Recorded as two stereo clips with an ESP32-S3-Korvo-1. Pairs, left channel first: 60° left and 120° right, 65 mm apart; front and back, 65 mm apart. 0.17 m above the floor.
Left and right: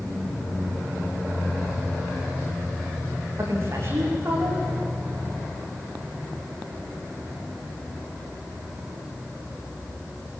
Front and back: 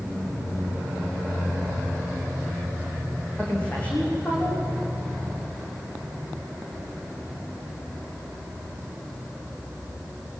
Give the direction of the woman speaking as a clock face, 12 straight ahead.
2 o'clock.